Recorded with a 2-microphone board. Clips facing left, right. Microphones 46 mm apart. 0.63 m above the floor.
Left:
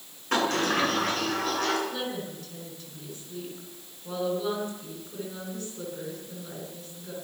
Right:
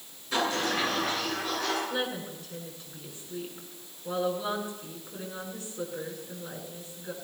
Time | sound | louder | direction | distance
0.3 | a sliding door | left 3 dB | 60° left (ahead or behind) | 9.5 m
1.9 | a woman speaking | right 1 dB | 15° right (ahead or behind) | 9 m